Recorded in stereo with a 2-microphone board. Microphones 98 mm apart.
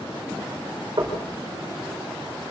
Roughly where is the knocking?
Right.